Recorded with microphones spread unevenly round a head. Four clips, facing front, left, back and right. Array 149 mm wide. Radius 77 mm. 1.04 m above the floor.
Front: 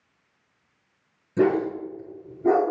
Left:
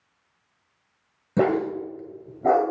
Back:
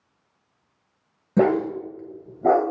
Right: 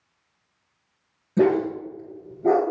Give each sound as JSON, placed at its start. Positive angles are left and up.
{"t": 1.4, "sound": "a dog barking", "azimuth_deg": 150, "distance_m": 2.0}